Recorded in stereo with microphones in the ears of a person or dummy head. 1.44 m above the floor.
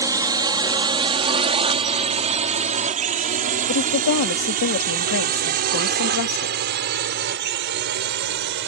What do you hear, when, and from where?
0.0 s a drone: 20° right (ahead or behind); by 8.7 s 60° right (ahead or behind)
3.7 s a woman speaking: 55° left (ahead or behind)